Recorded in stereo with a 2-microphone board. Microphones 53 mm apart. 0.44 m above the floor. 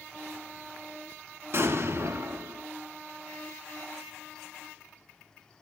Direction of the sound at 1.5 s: 55° right (ahead or behind).